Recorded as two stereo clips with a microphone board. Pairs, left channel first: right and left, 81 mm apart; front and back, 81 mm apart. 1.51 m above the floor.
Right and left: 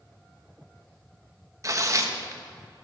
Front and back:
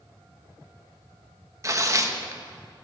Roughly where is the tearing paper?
Behind left.